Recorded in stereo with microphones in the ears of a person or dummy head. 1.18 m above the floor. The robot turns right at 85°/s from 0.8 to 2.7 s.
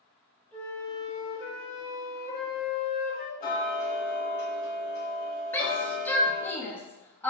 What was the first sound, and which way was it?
A flute, 10° left.